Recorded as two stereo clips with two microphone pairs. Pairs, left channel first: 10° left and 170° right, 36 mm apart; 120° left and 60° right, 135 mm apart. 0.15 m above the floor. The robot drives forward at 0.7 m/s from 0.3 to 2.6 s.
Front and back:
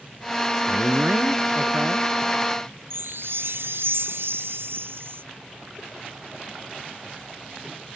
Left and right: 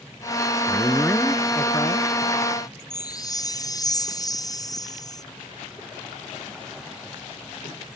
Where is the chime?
175° right.